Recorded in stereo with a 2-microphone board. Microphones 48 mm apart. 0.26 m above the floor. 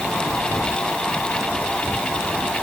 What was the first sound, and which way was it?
Only background noise.